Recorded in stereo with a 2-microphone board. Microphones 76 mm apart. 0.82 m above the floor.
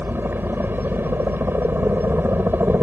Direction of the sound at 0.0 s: 30° right (ahead or behind).